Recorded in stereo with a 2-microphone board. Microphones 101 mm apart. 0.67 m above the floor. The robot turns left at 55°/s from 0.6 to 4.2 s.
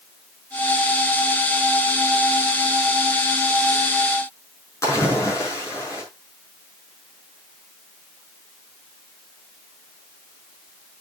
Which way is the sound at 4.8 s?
30° left (ahead or behind).